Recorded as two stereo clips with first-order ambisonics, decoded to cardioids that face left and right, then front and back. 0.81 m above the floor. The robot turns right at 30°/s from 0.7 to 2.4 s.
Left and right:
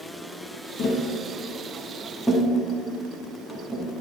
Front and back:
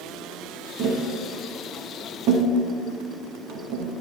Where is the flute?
I don't hear a flute.